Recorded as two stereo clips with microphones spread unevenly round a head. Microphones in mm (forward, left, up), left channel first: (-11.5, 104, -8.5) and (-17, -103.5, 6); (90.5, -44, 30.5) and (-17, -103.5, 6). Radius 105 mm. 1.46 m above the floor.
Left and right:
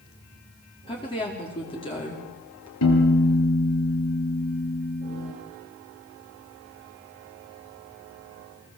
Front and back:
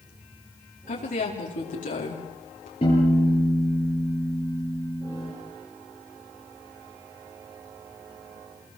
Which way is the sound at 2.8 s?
90° left.